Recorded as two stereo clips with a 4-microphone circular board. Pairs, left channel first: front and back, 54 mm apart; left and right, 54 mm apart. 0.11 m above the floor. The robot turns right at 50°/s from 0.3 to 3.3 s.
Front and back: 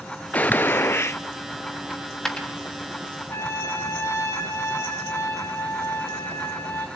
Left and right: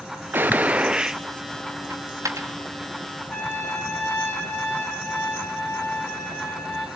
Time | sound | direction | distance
0.3 | a gunshot | 55° right | 0.5 m
1.9 | a dropped coin | 95° right | 3 m
3.3 | a trumpet | 30° left | 4 m